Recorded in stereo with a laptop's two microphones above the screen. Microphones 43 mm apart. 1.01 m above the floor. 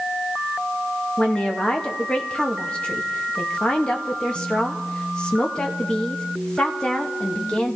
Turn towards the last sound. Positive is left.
turn(degrees=20)  # may be behind; listen again after turning